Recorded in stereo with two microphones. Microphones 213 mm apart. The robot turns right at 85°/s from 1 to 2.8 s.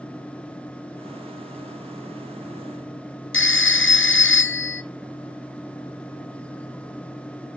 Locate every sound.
3.3 s a phone ringing: 65° left (ahead or behind), 0.5 m